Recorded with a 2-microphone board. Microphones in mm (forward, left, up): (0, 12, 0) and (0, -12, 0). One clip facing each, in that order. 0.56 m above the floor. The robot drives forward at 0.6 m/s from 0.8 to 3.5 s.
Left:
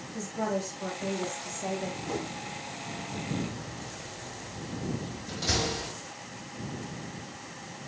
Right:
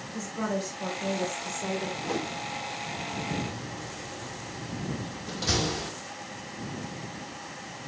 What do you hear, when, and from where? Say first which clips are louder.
0.1 s a woman speaking: even; 5° right (ahead or behind), 3 m
2.0 s a whoosh: right 3 dB; 20° right (ahead or behind), 0.9 m
3.4 s a door slam: right 1 dB; 20° right (ahead or behind), 5.5 m